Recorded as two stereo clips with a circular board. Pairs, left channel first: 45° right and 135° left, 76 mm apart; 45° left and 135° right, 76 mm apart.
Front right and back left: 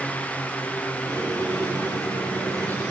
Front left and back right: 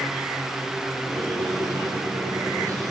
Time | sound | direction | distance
1.1 | a squeak | 175° right | 6 m